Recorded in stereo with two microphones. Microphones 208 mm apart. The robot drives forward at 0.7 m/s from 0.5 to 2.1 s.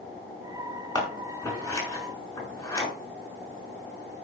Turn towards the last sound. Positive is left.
turn(degrees=15)  # may be behind; listen again after turning